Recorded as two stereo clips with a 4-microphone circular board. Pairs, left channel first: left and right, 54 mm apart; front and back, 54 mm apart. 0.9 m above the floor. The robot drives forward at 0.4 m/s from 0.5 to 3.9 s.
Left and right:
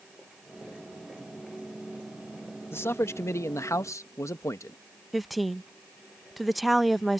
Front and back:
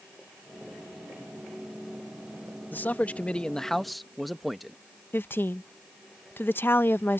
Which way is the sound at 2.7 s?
50° left.